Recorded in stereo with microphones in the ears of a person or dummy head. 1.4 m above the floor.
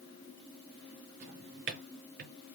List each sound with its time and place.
1.2 s a drawer: 50° right (ahead or behind), 0.6 m